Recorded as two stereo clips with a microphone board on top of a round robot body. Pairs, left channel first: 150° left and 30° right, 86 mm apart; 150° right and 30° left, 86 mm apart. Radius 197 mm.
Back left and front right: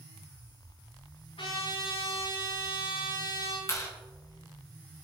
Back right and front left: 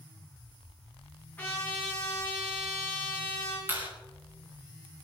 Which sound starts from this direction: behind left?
A trumpet, at 1.4 s.